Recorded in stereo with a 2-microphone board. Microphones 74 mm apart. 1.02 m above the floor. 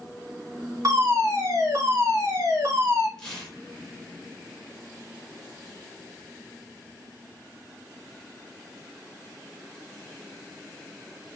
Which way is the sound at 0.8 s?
45° right (ahead or behind).